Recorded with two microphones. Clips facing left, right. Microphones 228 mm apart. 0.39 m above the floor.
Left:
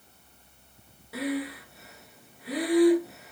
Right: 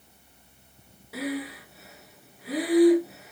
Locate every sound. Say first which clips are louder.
1.1 s breathing: left 1 dB; centre (ahead or behind), 0.9 m